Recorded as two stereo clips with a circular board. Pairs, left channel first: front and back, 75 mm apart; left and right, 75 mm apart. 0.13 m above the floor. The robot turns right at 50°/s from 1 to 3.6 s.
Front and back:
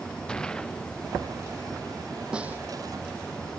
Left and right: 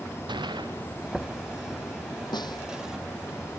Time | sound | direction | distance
0.3 | a gunshot | 80° right | ?
2.3 | a snare drum | 100° left | ?